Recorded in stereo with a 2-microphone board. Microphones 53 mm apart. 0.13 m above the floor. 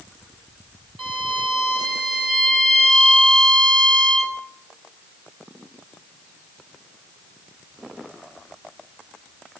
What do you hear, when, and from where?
1.0 s a violin: centre (ahead or behind), 3.5 m